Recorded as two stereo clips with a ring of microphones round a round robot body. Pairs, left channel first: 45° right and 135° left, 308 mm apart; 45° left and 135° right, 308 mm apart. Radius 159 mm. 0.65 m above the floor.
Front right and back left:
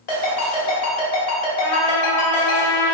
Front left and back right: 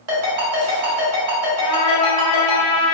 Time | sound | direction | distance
0.1 | a ringtone | 90° right | 1.6 m
1.6 | a trumpet | 30° right | 0.7 m